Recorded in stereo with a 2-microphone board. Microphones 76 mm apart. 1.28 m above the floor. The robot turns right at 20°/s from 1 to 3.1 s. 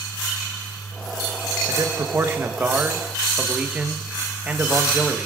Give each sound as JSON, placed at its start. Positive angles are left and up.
{"t": 1.7, "sound": "a man speaking", "side_deg": -40, "distance_m": 1.3}